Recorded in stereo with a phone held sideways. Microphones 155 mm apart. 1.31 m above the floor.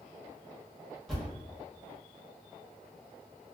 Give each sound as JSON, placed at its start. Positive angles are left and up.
{"t": 1.1, "sound": "a thud", "side_deg": 0, "distance_m": 1.4}